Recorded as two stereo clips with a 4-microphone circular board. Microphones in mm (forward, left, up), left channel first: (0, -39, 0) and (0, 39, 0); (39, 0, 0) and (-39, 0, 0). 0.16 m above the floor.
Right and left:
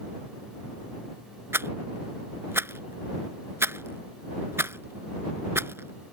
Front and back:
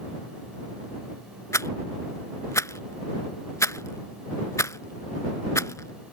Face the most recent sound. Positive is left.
turn(degrees=40)